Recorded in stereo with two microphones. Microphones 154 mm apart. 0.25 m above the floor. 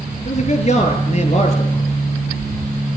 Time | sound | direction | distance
0.2 | a man speaking | 45° left (ahead or behind) | 6 m